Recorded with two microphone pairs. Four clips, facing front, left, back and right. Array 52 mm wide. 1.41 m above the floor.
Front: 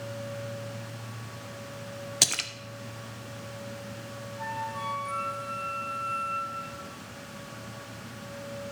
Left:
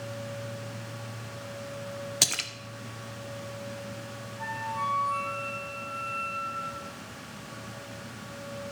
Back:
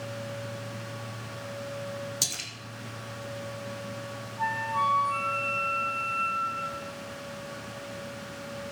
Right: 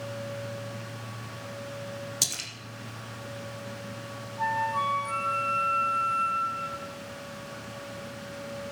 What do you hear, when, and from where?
2.2 s a splash: 40° left, 0.9 m
4.4 s a flute: 110° right, 3 m